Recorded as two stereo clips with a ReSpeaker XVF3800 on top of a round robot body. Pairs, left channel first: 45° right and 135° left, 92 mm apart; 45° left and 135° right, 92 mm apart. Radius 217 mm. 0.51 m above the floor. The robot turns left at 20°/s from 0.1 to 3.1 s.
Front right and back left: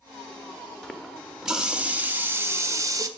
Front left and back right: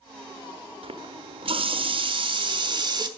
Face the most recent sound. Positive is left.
turn(degrees=-175)